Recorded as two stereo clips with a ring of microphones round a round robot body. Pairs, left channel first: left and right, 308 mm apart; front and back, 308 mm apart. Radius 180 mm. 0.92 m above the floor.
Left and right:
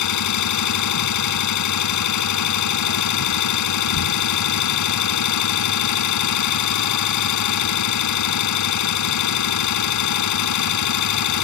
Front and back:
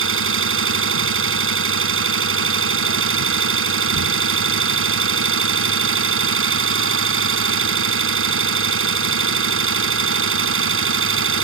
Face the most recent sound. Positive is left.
turn(degrees=130)